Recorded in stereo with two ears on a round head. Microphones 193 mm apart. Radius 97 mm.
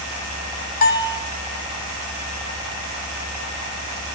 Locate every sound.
0.8 s a bell: 45° left (ahead or behind), 1.7 m